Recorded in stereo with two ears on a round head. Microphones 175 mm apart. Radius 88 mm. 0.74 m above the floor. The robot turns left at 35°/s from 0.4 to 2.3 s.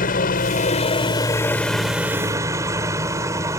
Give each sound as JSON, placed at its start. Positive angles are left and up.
{"t": 0.0, "sound": "a helicopter", "azimuth_deg": 50}